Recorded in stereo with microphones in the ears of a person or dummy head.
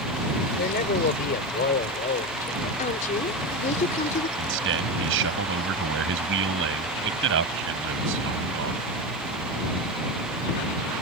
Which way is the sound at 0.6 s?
50° left (ahead or behind).